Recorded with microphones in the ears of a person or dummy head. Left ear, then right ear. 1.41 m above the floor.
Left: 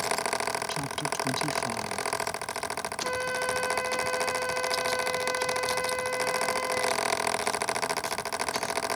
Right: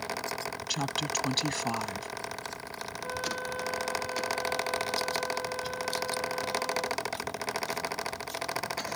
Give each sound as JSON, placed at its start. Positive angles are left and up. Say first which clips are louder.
{"t": 0.7, "sound": "a woman speaking", "louder": "even", "side_deg": -50}
{"t": 3.0, "sound": "a flute", "louder": "left 4 dB", "side_deg": 65}